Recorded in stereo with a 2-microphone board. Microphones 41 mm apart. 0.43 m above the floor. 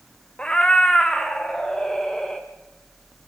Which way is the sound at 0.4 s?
25° left (ahead or behind).